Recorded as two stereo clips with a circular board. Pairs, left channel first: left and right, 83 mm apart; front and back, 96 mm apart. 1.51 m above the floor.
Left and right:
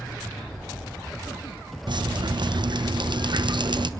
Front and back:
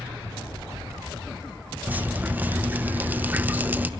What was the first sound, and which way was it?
Dripping, 110° right.